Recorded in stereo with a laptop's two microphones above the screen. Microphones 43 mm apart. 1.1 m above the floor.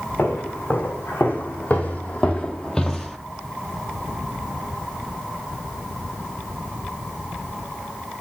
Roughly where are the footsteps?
Left.